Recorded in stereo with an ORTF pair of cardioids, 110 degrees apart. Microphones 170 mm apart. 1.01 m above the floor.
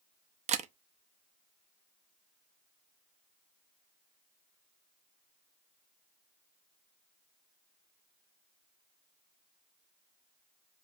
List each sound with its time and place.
0.5 s a camera shutter: 45° right, 0.5 m